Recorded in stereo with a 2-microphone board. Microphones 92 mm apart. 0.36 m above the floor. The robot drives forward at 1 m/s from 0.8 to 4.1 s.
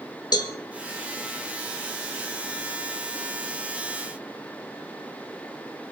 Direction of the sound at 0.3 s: 50° left (ahead or behind).